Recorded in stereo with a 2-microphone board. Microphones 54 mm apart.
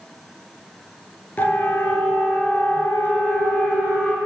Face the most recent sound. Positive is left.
turn(degrees=50)  # may be behind; listen again after turning